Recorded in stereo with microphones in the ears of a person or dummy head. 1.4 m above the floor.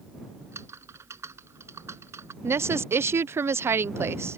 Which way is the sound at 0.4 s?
20° right (ahead or behind).